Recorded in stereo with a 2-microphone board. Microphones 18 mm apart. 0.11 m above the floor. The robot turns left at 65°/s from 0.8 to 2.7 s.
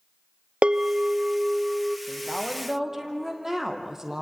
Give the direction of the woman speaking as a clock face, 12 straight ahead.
11 o'clock.